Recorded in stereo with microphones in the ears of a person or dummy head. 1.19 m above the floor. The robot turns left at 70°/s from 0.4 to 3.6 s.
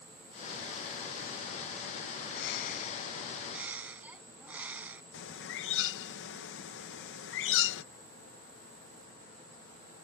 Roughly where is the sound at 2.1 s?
Left.